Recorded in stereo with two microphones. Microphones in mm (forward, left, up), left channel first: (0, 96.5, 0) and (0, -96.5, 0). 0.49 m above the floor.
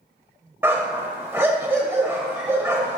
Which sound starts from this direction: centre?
A dog barking, at 0.6 s.